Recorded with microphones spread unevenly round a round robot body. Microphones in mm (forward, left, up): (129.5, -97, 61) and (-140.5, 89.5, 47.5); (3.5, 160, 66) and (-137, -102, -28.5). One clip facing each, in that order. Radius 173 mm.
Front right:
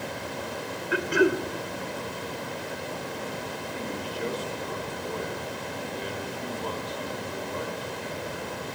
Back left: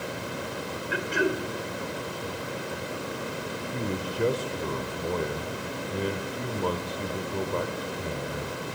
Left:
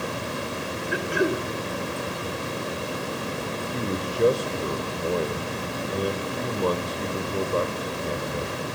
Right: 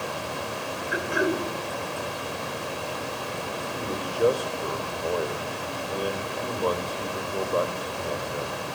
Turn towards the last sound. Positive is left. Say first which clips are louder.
# back left 5 dB, left 4 dB
turn(degrees=135)